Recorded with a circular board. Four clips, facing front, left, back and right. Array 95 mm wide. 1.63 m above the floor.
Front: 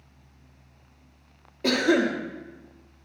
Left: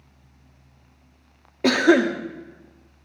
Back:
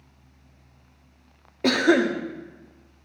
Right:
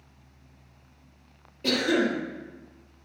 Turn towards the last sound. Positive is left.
turn(degrees=120)